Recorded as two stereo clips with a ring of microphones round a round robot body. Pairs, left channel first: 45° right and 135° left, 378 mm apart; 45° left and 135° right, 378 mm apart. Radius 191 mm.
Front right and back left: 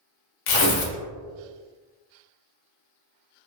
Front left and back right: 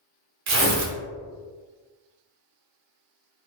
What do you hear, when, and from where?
0.5 s tearing paper: 80° right, 0.7 m